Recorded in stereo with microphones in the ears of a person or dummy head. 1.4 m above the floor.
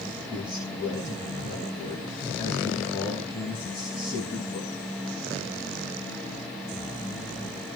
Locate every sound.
0.3 s a man speaking: 30° left (ahead or behind), 7.5 m